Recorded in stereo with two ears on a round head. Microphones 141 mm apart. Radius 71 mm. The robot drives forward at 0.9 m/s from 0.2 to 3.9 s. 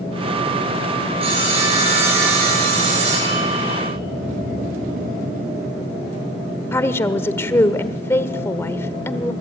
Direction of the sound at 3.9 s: 60° right (ahead or behind).